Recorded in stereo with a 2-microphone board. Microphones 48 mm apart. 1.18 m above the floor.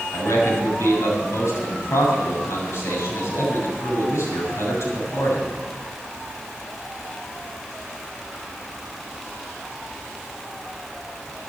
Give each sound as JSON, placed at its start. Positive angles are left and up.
{"t": 0.1, "sound": "a man speaking", "side_deg": 85, "distance_m": 7.0}